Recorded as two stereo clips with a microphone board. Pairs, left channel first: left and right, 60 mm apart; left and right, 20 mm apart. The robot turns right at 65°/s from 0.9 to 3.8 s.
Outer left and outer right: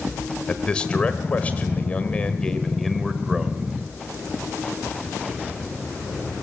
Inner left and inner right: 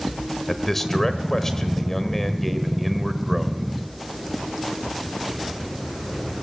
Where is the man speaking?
20° left (ahead or behind), 1.3 m; by 3.7 s 20° right (ahead or behind), 1.3 m.